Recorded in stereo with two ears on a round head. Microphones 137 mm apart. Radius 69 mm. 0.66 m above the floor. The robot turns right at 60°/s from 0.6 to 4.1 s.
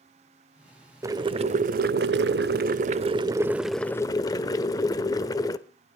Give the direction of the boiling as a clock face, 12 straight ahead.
5 o'clock.